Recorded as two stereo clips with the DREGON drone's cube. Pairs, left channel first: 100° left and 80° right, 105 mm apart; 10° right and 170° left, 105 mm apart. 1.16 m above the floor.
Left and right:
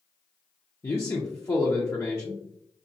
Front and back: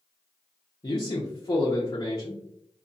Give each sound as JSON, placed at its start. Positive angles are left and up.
{"t": 0.8, "sound": "a man speaking", "azimuth_deg": 40, "distance_m": 0.7}